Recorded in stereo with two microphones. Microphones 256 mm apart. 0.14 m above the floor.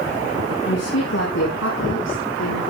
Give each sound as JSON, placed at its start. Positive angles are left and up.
{"t": 0.7, "sound": "a woman speaking", "side_deg": 75, "distance_m": 6.0}